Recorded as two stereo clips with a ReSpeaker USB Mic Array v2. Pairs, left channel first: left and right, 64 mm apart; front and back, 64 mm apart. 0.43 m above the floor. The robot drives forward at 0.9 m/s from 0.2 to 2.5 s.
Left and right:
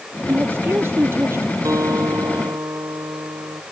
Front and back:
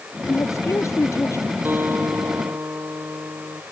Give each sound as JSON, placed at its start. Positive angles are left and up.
{"t": 0.3, "sound": "a woman speaking", "azimuth_deg": -35}
{"t": 1.6, "sound": "a guitar", "azimuth_deg": -120}